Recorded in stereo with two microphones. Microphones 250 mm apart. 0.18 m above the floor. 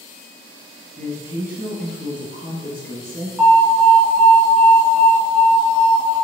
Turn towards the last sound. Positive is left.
turn(degrees=0)  # may be behind; listen again after turning